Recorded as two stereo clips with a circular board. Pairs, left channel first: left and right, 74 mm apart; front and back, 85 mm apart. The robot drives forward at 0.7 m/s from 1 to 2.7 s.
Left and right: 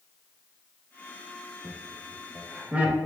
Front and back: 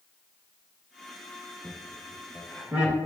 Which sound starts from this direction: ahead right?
Laughter, at 1.6 s.